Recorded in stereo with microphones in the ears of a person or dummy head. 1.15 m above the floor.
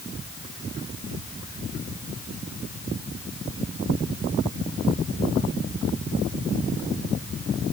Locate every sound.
Only background noise.